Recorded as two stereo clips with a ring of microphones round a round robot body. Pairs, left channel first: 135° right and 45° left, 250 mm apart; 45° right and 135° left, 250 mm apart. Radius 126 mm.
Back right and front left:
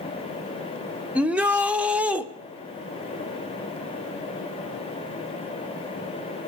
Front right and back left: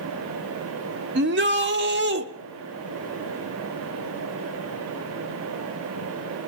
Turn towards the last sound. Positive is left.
turn(degrees=130)